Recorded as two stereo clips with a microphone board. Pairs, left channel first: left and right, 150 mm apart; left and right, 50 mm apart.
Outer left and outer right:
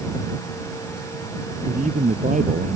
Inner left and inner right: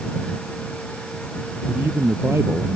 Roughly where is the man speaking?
Right.